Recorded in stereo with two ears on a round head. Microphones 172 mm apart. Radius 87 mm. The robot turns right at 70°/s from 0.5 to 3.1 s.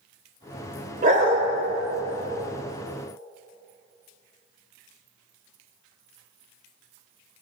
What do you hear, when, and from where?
1.0 s a dog barking: 45° right (ahead or behind), 1.9 m; by 1.4 s 35° right (ahead or behind), 1.9 m